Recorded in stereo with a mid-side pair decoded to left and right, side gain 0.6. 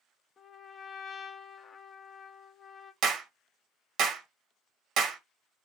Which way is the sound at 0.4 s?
35° left.